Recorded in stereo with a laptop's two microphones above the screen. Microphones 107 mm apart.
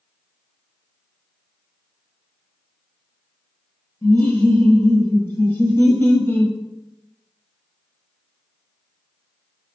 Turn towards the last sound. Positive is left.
turn(degrees=25)  # may be behind; listen again after turning